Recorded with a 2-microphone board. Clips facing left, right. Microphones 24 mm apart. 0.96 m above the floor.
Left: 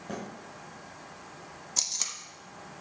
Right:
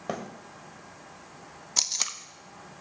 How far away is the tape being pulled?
About 0.7 m.